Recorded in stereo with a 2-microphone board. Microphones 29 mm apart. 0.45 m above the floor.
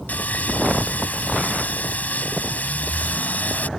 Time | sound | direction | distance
0.1 | sawing | 70° left (ahead or behind) | ?